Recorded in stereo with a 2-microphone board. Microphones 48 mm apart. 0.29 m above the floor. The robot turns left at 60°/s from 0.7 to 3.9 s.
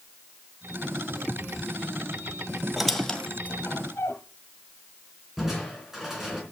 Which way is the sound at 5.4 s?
5° right (ahead or behind).